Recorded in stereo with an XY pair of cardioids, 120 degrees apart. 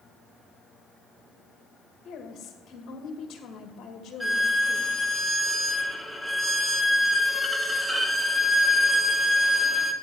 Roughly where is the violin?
Ahead.